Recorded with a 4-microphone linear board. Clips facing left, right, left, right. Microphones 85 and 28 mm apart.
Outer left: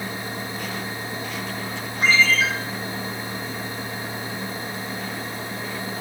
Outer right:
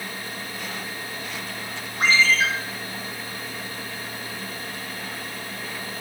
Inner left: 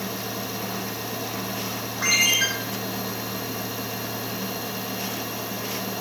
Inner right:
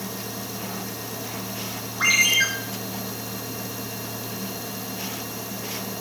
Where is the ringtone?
75° right (ahead or behind), 2.5 m.